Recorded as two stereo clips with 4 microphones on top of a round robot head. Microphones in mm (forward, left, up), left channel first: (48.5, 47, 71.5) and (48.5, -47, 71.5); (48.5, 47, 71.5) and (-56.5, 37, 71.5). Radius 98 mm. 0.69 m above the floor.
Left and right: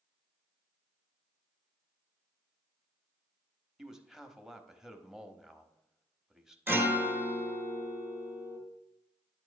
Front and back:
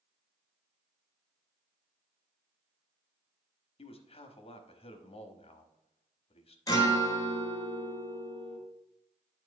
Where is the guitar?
35° right, 1.3 m.